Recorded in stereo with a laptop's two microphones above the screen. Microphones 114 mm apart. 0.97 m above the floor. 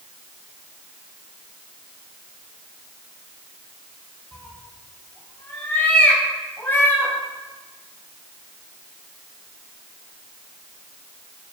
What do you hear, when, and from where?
4.3 s a cat meowing: 20° left (ahead or behind), 3.5 m